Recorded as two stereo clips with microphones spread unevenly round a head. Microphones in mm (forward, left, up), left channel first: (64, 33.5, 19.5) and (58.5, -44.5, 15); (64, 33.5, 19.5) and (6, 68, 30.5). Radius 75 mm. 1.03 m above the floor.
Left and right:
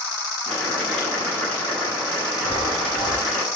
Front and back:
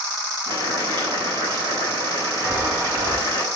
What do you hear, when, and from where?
0.5 s boiling: 170° left, 9.5 m
2.4 s a chime: 105° left, 4 m